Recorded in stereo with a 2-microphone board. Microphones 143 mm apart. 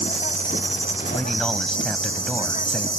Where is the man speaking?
5° left (ahead or behind).